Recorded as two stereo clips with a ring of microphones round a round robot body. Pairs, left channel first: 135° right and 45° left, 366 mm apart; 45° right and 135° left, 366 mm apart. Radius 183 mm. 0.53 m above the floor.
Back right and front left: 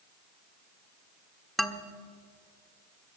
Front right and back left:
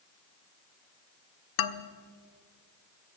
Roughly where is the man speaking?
Ahead right.